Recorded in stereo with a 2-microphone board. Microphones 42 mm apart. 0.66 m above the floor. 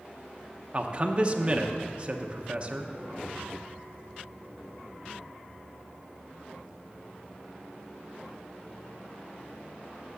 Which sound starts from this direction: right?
A man speaking, at 0.7 s.